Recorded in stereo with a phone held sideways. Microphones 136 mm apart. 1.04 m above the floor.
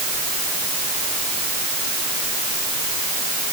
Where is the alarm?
No alarm in this recording.